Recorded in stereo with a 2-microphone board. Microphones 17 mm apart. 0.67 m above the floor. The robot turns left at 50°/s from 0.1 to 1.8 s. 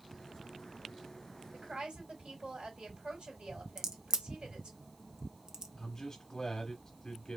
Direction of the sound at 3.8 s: 40° right (ahead or behind).